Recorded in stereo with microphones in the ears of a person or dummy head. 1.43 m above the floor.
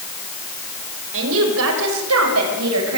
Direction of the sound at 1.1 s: 75° right (ahead or behind).